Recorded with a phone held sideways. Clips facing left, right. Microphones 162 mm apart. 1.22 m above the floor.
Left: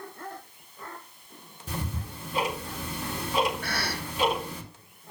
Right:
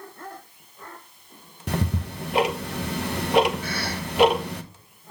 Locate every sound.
1.7 s ticking: 75° right (ahead or behind), 1.0 m
3.6 s a cough: 70° left (ahead or behind), 2.5 m